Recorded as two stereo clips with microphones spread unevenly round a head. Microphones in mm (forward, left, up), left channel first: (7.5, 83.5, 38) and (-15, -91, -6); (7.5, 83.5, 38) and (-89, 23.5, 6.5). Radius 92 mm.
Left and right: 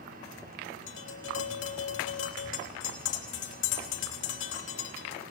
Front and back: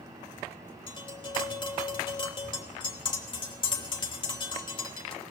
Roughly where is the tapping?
Left.